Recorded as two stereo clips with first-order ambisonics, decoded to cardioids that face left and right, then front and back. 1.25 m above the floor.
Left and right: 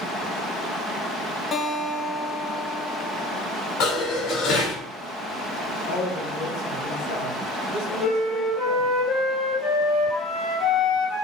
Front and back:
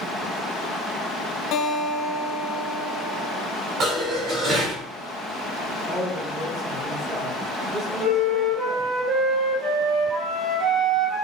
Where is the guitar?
25° left, 0.7 m.